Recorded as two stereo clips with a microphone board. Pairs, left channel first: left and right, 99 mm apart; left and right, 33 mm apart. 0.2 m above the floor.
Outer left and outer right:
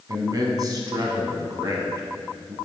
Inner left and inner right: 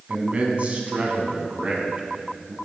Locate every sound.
0.1 s a man speaking: 40° right (ahead or behind), 1.3 m